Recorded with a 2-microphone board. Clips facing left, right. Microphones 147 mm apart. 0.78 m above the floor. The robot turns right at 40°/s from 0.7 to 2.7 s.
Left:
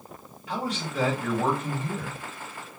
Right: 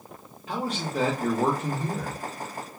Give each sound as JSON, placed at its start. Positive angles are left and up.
{"t": 0.5, "sound": "a man speaking", "azimuth_deg": -140, "distance_m": 1.0}